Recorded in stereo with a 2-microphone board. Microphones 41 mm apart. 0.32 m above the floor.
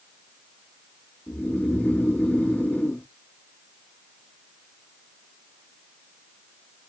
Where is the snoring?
35° left (ahead or behind), 1.3 m.